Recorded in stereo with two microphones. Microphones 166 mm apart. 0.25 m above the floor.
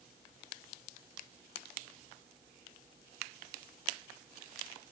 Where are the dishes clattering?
I don't hear dishes clattering.